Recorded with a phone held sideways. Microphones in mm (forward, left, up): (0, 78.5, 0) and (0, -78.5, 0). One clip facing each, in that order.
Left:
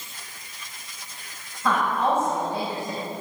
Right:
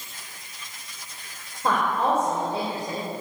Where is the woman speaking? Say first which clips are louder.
Even; 40° right (ahead or behind), 5.5 m.